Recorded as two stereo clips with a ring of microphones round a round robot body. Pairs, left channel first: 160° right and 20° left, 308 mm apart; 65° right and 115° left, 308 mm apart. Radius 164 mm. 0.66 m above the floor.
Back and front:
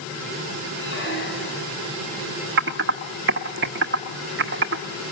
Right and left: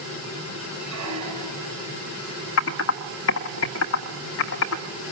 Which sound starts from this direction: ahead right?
Typing on a keyboard, at 2.6 s.